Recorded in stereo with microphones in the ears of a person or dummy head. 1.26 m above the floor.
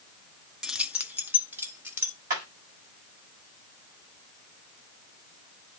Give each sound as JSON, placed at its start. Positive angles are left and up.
{"t": 0.6, "sound": "keys jangling", "side_deg": 0, "distance_m": 0.6}
{"t": 2.3, "sound": "hammering", "side_deg": -50, "distance_m": 8.0}